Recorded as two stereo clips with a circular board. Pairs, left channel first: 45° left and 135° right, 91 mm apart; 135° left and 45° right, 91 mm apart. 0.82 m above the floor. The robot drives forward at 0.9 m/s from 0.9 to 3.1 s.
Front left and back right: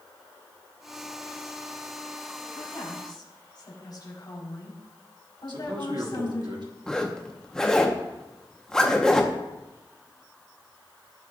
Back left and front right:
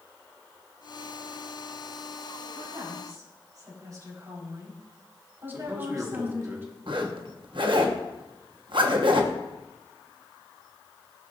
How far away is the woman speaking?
About 4.5 m.